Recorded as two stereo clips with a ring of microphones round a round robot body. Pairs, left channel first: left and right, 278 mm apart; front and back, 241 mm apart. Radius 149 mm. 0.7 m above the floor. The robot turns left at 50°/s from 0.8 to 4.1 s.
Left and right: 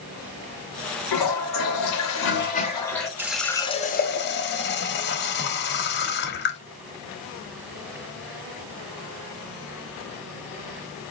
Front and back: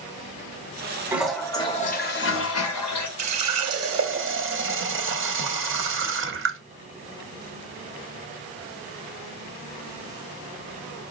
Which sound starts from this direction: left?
A toilet flushing, at 1.1 s.